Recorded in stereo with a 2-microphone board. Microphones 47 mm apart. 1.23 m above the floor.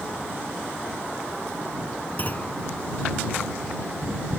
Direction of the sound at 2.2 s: 35° left (ahead or behind).